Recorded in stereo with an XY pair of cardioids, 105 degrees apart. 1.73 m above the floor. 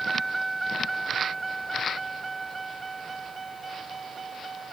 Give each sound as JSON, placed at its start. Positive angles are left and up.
{"t": 0.0, "sound": "a vehicle", "azimuth_deg": -10}